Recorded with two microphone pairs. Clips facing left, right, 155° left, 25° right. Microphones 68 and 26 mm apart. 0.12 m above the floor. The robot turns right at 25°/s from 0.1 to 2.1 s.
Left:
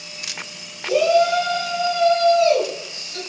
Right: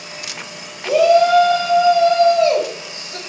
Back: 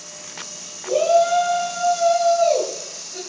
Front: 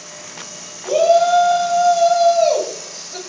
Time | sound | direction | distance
0.8 | a shout | 85° right | 5 m